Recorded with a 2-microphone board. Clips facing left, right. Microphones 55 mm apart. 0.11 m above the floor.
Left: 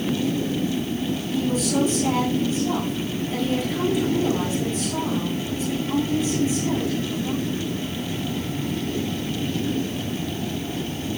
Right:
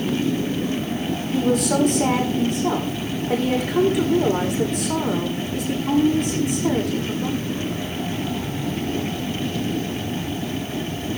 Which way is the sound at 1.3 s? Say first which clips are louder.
Right 4 dB; 65° right (ahead or behind).